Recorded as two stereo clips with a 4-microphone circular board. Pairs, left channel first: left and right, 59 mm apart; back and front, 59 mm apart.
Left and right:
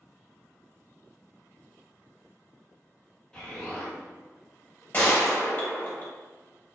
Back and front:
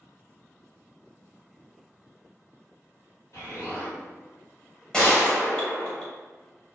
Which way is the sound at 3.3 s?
170° left.